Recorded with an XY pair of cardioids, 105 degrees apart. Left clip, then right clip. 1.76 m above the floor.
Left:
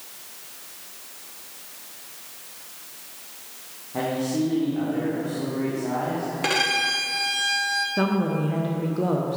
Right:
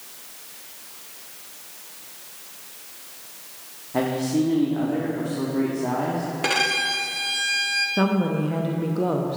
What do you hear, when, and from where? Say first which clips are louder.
3.9 s a man speaking: right 2 dB; 40° right, 1.2 m
6.4 s a violin: even; 5° right, 0.8 m
8.0 s a woman speaking: right 1 dB; 10° right, 0.6 m